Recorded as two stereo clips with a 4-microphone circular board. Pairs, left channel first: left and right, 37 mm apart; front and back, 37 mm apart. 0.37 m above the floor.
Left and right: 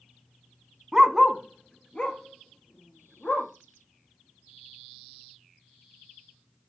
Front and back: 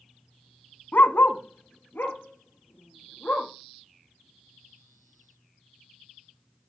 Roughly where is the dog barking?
Ahead.